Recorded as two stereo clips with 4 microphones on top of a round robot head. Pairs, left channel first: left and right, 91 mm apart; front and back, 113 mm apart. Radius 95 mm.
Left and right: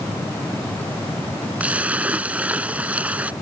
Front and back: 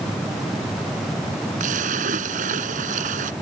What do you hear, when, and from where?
1.6 s a splash: 165° right